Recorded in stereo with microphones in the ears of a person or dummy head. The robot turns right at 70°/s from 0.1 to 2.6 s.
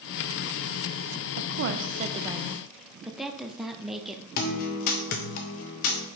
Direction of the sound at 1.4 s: 85° right.